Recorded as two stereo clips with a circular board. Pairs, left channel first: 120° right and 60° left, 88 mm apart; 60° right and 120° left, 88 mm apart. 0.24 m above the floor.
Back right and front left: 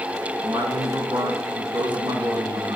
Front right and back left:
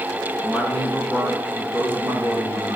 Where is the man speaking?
45° left, 2.5 m; by 2.8 s 80° left, 3 m.